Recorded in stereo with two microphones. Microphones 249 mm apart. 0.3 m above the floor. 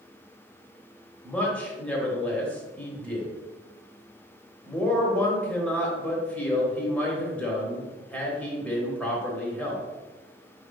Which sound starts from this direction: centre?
A man speaking, at 1.2 s.